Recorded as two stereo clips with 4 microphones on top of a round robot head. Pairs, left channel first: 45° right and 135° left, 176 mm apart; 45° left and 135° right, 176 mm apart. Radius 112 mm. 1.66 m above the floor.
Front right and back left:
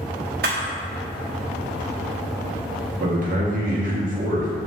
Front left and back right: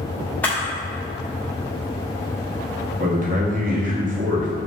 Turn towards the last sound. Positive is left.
turn(degrees=180)